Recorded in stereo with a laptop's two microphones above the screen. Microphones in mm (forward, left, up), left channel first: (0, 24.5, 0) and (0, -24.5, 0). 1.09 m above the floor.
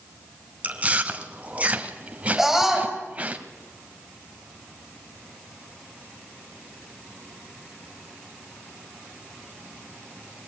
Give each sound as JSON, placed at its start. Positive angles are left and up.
{"t": 0.6, "sound": "chewing", "side_deg": -30, "distance_m": 1.5}
{"t": 2.4, "sound": "a scream", "side_deg": -5, "distance_m": 6.5}